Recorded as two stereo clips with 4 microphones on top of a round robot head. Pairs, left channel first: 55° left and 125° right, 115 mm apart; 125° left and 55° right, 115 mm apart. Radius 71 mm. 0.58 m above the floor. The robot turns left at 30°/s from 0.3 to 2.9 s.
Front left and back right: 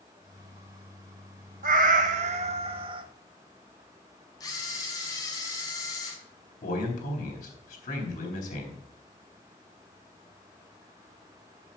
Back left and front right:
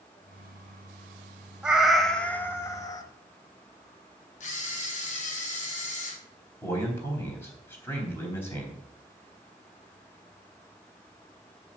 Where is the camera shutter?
110° left, 2.5 m.